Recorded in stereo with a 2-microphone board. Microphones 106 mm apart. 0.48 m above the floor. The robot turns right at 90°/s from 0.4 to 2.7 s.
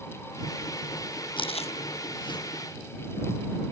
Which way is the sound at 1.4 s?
50° left (ahead or behind).